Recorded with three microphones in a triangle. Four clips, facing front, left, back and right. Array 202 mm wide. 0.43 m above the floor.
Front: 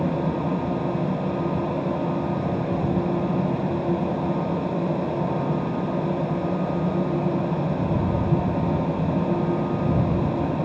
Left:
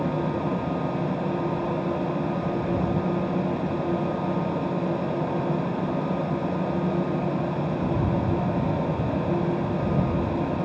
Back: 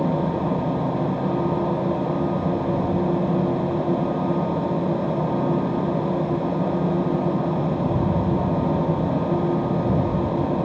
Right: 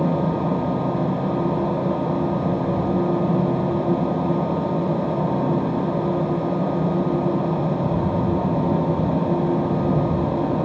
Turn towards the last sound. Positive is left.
No sound to turn to.